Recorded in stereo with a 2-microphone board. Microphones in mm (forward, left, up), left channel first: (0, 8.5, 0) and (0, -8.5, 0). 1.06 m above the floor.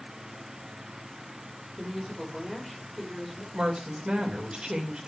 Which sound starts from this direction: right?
A woman speaking, at 3.5 s.